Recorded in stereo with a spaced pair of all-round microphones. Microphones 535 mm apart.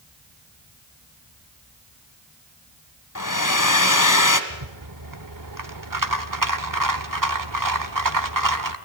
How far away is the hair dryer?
About 1.5 m.